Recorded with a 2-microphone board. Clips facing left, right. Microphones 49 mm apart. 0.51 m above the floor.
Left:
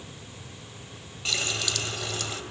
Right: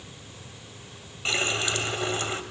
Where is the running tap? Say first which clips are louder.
Right 4 dB; 30° right (ahead or behind), 1.7 m.